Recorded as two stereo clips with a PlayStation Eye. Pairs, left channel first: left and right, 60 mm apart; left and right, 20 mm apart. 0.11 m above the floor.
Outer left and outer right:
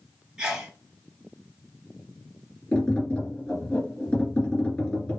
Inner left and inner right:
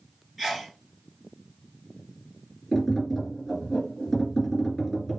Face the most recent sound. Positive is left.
turn(degrees=15)  # may be behind; listen again after turning